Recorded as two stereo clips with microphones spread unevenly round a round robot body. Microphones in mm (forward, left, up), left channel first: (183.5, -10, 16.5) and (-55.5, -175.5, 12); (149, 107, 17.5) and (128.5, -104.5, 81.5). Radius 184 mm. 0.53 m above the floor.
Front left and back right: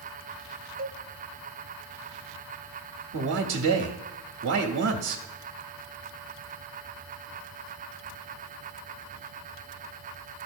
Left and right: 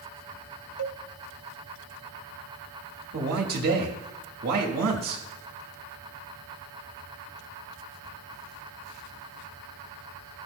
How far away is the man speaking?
About 0.8 m.